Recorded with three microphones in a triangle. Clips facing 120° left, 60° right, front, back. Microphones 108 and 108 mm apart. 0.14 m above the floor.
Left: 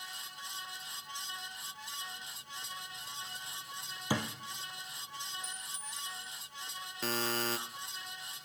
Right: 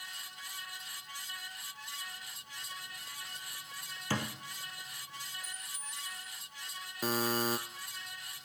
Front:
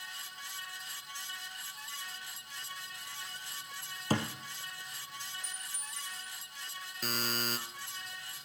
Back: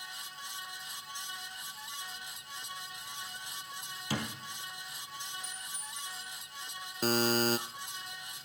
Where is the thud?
45° left, 2 m.